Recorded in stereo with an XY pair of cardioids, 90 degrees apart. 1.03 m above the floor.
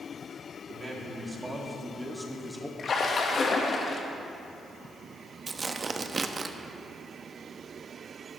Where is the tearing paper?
35° right, 0.7 m.